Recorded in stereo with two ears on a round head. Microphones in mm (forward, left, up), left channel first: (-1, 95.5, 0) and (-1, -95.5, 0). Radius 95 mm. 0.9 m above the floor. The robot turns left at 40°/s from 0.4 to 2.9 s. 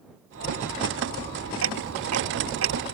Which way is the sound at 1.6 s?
70° right (ahead or behind).